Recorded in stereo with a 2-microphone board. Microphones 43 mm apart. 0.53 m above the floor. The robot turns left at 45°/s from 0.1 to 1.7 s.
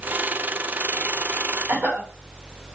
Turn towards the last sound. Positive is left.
turn(degrees=-50)  # may be behind; listen again after turning